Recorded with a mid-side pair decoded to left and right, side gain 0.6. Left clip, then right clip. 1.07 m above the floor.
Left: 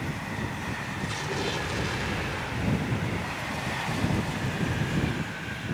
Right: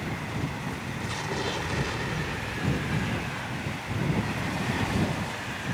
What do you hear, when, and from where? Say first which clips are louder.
1.0 s an explosion: right 1 dB; 5° left